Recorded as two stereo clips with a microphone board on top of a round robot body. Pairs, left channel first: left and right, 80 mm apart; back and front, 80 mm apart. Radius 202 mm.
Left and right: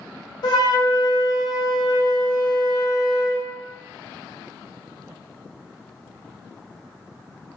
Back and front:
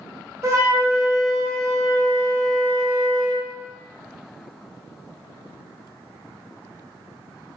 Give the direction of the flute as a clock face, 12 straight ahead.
10 o'clock.